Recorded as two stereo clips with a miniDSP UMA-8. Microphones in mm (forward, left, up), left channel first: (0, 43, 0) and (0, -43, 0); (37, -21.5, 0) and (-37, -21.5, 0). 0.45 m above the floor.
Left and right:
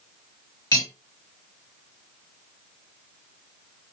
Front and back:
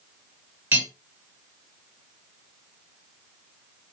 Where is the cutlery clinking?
125° left, 1.1 m.